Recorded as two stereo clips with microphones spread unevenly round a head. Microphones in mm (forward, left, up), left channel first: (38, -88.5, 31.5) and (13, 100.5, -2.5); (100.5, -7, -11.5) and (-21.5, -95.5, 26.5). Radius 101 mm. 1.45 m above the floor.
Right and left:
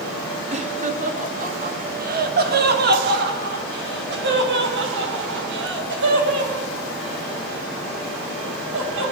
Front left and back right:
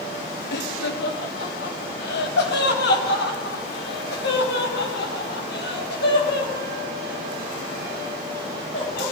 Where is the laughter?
40° left, 2.5 m; by 9.1 s 80° left, 8.5 m.